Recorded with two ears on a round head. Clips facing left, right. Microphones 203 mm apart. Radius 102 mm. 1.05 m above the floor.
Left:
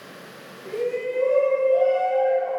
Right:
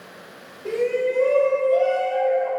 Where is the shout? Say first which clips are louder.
Right 4 dB; 75° right (ahead or behind), 3.5 m.